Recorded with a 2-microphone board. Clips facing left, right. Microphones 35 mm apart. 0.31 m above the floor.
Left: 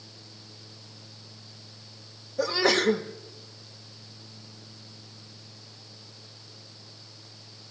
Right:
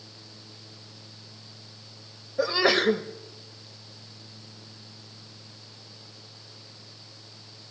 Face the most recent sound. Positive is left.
turn(degrees=-25)  # may be behind; listen again after turning